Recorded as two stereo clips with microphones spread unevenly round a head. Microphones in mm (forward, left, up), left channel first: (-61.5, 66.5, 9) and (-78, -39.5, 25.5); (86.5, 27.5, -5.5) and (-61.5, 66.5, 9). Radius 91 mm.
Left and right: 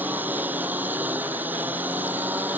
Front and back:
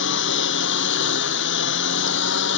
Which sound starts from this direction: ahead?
A lawn mower, at 0.0 s.